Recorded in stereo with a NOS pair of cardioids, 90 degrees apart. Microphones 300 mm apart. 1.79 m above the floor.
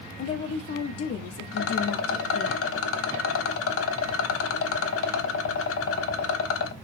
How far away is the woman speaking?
About 0.7 m.